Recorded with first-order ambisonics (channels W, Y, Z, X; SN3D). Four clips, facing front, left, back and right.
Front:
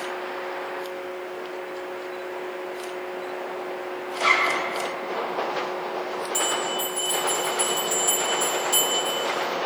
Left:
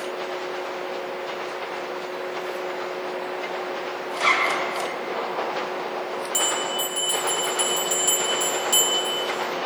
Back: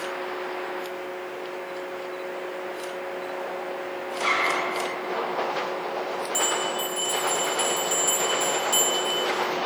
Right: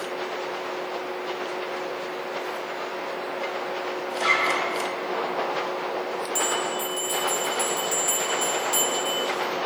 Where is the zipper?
85° left, 4 m.